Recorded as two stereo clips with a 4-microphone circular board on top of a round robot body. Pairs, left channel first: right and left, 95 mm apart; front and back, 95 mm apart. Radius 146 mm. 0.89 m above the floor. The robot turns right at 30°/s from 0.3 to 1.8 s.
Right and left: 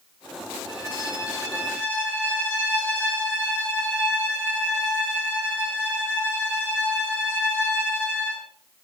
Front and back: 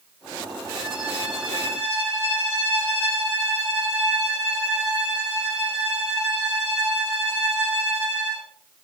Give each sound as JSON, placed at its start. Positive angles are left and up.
{"t": 0.7, "sound": "a violin", "azimuth_deg": -55, "distance_m": 2.0}